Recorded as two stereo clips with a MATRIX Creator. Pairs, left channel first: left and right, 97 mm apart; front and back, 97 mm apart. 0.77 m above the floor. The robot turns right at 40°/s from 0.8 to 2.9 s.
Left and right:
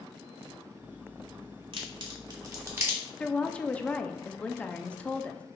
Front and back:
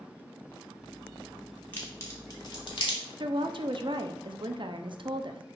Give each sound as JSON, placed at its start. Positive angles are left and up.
{"t": 1.7, "sound": "a crack", "azimuth_deg": -70, "distance_m": 2.0}
{"t": 3.2, "sound": "a woman speaking", "azimuth_deg": 165, "distance_m": 0.7}